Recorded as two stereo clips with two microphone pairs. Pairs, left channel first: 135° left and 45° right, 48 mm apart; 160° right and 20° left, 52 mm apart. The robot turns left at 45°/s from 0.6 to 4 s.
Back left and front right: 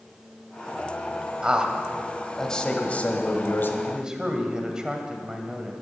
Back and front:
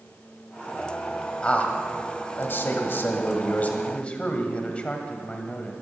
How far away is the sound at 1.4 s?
About 1.7 m.